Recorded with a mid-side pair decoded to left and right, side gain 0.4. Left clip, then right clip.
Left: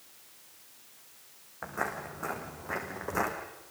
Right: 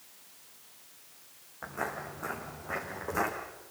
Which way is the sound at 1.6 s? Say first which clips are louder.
Left 1 dB; 35° left.